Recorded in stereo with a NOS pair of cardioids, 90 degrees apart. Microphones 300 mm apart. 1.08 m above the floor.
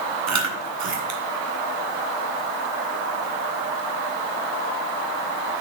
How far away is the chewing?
About 2 m.